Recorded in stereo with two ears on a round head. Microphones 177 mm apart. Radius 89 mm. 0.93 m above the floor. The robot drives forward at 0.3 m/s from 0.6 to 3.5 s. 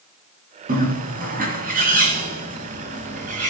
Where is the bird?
50° right (ahead or behind), 8 m; by 3.5 s 45° right (ahead or behind), 8.5 m.